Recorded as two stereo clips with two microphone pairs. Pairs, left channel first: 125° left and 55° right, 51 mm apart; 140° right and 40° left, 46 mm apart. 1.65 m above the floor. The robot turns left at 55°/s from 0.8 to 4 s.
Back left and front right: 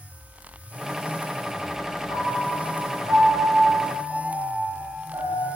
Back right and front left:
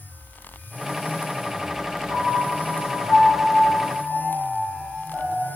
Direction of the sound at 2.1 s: 30° left.